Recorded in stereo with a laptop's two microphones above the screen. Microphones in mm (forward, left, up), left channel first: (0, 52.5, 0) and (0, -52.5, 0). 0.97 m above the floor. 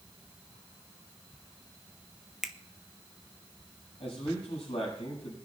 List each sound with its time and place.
2.4 s a finger snap: 5° right (ahead or behind), 0.5 m
4.0 s a man speaking: 75° left (ahead or behind), 6.5 m